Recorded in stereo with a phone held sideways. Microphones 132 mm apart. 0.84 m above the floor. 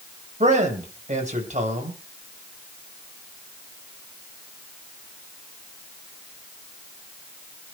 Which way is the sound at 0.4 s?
70° right (ahead or behind).